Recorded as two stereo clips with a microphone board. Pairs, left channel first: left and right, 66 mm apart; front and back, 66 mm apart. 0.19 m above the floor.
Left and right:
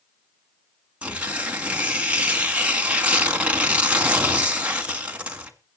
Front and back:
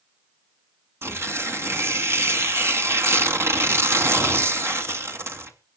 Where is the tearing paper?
155° right, 2 m.